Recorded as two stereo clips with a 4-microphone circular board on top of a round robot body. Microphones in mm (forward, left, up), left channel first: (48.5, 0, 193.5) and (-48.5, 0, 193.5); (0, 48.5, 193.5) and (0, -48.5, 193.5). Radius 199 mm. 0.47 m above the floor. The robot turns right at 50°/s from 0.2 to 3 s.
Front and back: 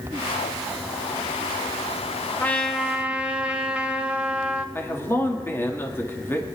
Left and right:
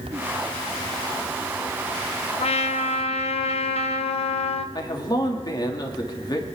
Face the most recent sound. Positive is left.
turn(degrees=60)